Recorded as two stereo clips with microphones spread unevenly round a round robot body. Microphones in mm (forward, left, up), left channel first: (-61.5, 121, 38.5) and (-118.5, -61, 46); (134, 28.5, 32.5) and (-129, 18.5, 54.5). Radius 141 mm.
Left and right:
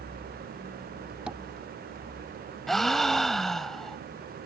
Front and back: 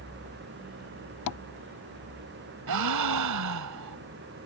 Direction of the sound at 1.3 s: 25° right.